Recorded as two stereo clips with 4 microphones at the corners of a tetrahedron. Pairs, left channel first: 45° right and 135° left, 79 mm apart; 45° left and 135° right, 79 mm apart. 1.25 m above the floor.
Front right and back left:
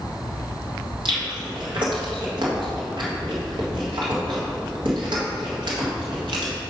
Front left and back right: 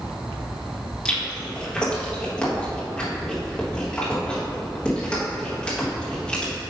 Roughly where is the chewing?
Behind left.